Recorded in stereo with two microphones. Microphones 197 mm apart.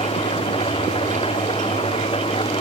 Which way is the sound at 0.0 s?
30° left (ahead or behind).